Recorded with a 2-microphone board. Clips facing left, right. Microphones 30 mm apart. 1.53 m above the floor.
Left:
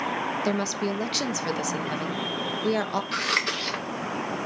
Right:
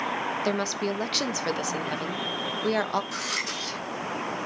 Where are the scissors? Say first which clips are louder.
Left 5 dB; 50° left (ahead or behind), 1.7 m.